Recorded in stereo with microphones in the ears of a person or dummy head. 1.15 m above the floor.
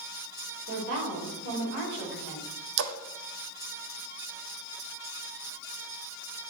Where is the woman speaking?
60° right (ahead or behind), 3.5 m.